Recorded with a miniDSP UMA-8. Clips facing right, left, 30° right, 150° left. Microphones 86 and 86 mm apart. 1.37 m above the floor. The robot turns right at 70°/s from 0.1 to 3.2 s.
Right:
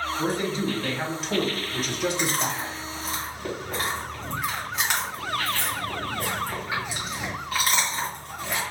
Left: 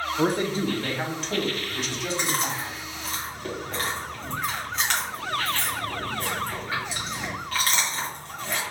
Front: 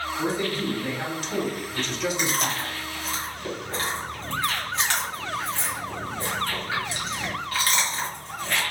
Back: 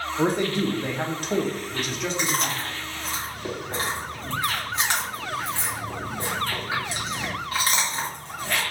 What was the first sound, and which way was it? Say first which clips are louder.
A man speaking: left 4 dB, back 5 dB; 110° left.